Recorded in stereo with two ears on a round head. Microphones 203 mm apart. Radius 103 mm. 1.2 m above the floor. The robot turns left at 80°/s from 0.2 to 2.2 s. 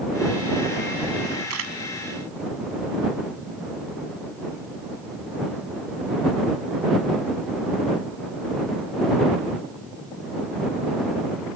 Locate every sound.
1.5 s a camera shutter: 80° right; by 1.8 s 60° right (ahead or behind)